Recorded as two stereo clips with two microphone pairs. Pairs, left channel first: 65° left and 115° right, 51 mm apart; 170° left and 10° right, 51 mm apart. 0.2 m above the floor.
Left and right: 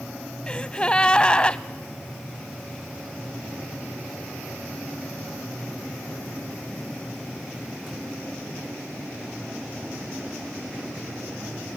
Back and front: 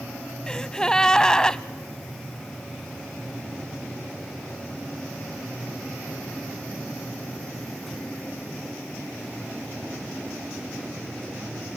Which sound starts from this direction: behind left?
A gasp, at 0.5 s.